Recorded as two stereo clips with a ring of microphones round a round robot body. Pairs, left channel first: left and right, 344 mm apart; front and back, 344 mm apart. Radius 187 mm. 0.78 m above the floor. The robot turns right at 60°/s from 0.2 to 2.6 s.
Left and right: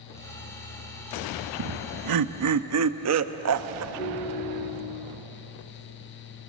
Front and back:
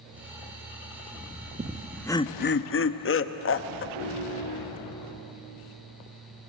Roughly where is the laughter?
Right.